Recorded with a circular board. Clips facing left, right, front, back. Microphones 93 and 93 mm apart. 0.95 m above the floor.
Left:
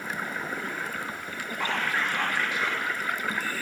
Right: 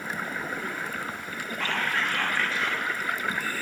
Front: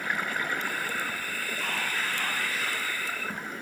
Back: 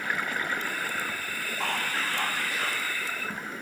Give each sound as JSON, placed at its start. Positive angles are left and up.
{"t": 1.6, "sound": "whispering", "azimuth_deg": 165, "distance_m": 1.3}